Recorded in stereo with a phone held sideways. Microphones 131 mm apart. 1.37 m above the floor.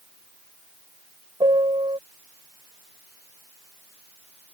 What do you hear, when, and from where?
1.4 s a piano: 40° right (ahead or behind)